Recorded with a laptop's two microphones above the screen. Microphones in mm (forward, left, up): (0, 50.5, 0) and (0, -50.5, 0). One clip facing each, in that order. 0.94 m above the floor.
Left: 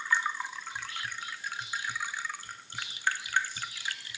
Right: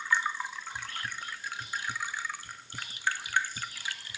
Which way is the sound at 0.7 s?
40° right (ahead or behind).